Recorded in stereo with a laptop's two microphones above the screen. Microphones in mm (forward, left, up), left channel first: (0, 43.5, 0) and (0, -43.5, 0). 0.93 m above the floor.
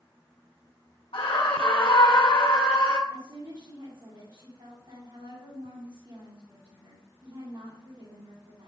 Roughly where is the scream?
Left.